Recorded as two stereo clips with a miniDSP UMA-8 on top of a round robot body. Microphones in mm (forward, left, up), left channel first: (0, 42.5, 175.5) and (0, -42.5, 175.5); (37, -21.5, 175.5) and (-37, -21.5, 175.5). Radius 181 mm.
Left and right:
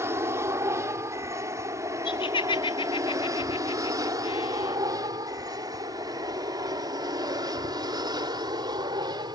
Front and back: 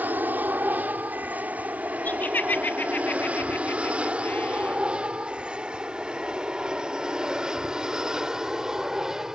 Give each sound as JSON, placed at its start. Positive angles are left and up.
{"t": 0.0, "sound": "an aircraft", "azimuth_deg": -125}
{"t": 2.0, "sound": "laughter", "azimuth_deg": 70}